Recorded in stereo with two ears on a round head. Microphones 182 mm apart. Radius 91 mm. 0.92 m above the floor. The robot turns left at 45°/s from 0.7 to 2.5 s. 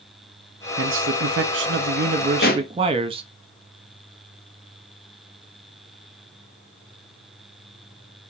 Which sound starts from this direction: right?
A man speaking, at 0.8 s.